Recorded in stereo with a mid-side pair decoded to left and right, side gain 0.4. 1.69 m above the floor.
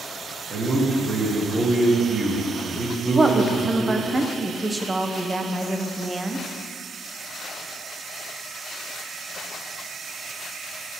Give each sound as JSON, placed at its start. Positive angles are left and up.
{"t": 0.5, "sound": "a man speaking", "azimuth_deg": -45, "distance_m": 2.5}
{"t": 3.1, "sound": "a woman speaking", "azimuth_deg": -25, "distance_m": 1.1}